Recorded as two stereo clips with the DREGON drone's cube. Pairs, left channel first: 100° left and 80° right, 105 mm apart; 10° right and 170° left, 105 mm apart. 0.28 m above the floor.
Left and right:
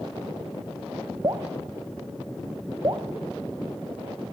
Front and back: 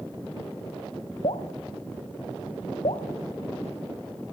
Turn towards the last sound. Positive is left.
turn(degrees=-30)